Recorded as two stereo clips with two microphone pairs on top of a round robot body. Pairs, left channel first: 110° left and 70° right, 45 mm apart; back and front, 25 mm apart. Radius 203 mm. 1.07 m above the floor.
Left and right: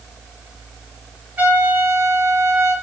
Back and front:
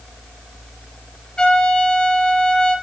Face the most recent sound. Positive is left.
turn(degrees=-125)